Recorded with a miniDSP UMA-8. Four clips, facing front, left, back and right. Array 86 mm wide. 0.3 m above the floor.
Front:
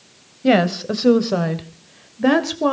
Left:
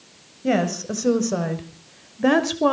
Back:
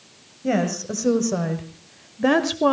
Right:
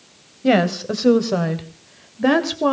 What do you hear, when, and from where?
0.4 s a woman speaking: 30° right, 1.9 m; by 2.7 s 170° right, 1.4 m